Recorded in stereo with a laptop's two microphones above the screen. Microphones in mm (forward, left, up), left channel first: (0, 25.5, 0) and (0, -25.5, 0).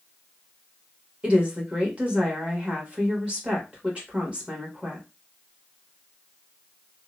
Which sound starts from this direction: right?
A woman speaking, at 1.2 s.